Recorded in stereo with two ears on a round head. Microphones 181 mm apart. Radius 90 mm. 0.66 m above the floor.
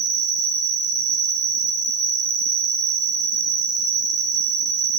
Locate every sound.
0.0 s an insect: 45° right (ahead or behind), 2.5 m